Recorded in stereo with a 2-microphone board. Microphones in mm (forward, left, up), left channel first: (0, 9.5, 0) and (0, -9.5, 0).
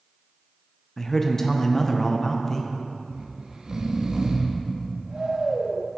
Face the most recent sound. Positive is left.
turn(degrees=-45)  # may be behind; listen again after turning